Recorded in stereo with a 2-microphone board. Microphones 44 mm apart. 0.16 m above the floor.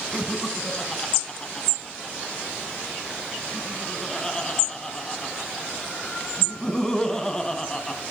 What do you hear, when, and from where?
0.1 s laughter: 10° left (ahead or behind), 1.0 m